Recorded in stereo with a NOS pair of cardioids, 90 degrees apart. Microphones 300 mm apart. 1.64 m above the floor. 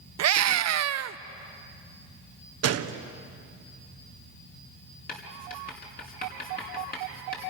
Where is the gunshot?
55° right, 1.3 m.